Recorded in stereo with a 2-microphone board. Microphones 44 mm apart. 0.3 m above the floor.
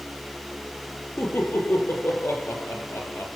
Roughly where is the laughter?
Left.